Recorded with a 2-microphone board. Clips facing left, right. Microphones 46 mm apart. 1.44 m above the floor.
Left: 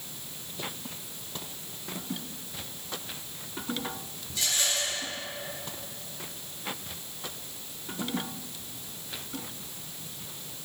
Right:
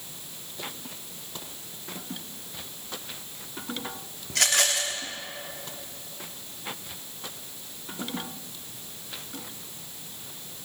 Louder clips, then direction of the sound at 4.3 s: Right 6 dB; 70° right (ahead or behind).